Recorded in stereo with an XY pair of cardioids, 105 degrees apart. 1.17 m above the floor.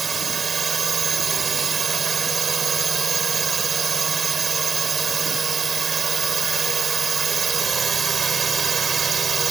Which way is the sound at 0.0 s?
35° right.